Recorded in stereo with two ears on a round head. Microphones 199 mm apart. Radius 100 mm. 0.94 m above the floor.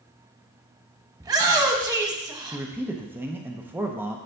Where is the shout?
15° right (ahead or behind), 0.8 m.